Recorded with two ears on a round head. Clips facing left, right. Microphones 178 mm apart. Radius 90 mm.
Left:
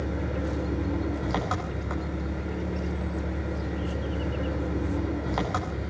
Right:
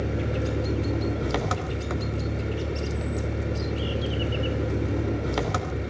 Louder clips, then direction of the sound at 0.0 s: Right 2 dB; 35° right (ahead or behind).